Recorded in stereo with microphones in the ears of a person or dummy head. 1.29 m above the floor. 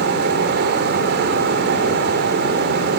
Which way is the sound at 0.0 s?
50° right (ahead or behind).